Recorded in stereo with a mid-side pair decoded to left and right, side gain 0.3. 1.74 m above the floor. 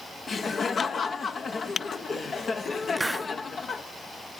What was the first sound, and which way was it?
Laughter, 60° left.